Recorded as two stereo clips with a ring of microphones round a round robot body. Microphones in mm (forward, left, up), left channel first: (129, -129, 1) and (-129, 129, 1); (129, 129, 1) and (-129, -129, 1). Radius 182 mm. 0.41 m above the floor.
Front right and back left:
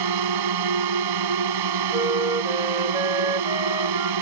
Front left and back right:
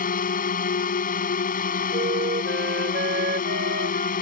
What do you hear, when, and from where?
0.0 s a drone: 110° left
1.9 s a flute: 160° right